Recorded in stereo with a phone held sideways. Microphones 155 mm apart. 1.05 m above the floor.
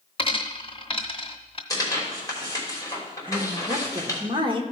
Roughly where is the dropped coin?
Left.